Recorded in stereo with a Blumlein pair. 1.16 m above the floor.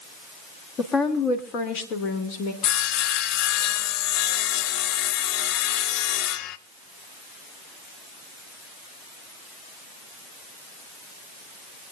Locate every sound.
0.8 s a woman speaking: 25° left, 2.5 m; by 2.5 s 45° left, 3 m
2.6 s sawing: 40° left, 0.6 m